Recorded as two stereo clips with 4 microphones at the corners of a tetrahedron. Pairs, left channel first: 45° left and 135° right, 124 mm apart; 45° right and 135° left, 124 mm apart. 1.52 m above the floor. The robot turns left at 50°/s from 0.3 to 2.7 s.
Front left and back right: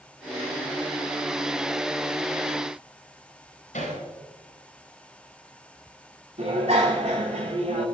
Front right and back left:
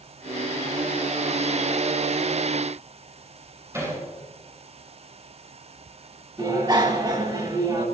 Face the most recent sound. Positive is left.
turn(degrees=-170)